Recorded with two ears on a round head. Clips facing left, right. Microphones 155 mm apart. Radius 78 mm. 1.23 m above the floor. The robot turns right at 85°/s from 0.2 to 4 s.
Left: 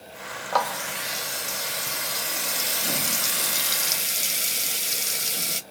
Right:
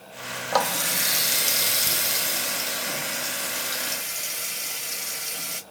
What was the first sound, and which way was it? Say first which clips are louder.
A running tap: right 1 dB; 160° right.